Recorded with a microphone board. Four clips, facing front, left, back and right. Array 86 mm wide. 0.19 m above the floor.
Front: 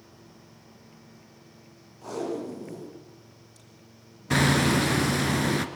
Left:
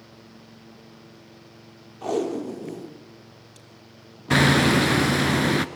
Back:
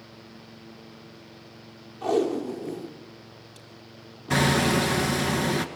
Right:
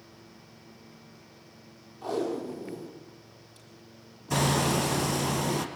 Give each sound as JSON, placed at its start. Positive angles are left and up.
{"t": 2.0, "sound": "tape being pulled", "azimuth_deg": 130, "distance_m": 4.5}
{"t": 4.3, "sound": "hammering", "azimuth_deg": 90, "distance_m": 1.5}